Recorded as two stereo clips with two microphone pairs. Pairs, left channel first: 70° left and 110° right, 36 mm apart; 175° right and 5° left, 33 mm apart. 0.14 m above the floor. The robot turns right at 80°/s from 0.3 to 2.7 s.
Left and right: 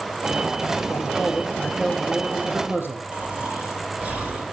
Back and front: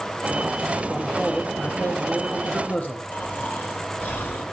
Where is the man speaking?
85° left, 4 m; by 3.0 s 130° right, 4 m.